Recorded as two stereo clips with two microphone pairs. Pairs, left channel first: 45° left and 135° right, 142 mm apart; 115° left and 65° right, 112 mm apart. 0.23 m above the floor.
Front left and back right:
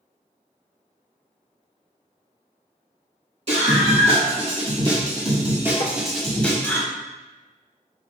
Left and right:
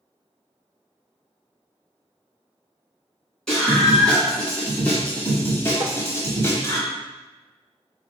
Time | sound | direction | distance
3.5 | a scream | 160° right | 1.9 m
5.8 | tapping | 95° right | 0.6 m